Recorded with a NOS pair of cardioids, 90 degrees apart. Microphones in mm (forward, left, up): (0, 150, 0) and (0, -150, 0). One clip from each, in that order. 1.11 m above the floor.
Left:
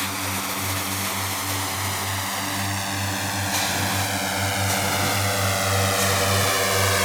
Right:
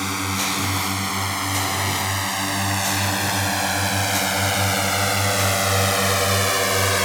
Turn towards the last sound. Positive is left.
turn(degrees=-10)